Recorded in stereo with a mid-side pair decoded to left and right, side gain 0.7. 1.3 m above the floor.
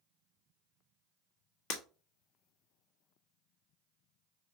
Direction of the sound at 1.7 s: 70° left.